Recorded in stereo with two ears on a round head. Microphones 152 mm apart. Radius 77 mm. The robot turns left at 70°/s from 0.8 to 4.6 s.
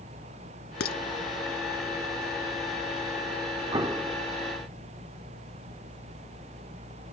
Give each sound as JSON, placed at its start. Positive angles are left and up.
{"t": 0.8, "sound": "dishes clattering", "side_deg": 65}
{"t": 3.7, "sound": "an explosion", "azimuth_deg": -135}